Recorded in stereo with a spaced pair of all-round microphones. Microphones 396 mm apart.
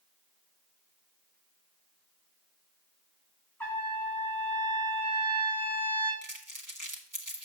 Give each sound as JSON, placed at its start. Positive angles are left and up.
{"t": 3.6, "sound": "a trumpet", "side_deg": 5, "distance_m": 3.5}
{"t": 6.2, "sound": "crumpling", "side_deg": -50, "distance_m": 1.6}